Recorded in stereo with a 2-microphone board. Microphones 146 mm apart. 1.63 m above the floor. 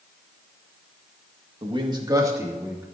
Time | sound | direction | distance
1.6 | a man speaking | 35° right (ahead or behind) | 1.9 m